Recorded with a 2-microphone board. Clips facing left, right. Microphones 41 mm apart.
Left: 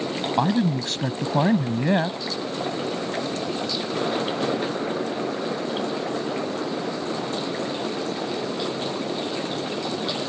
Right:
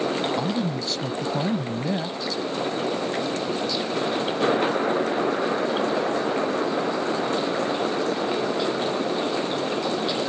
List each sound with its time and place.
0.4 s a man speaking: 55° left (ahead or behind)